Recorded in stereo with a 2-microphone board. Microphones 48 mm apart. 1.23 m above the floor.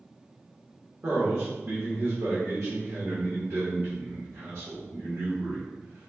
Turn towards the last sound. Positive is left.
turn(degrees=-60)  # may be behind; listen again after turning